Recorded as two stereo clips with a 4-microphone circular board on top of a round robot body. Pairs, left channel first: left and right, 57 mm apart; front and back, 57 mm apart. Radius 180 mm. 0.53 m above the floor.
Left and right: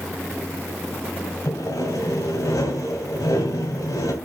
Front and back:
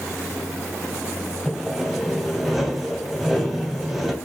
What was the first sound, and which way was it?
Sawing, 90° left.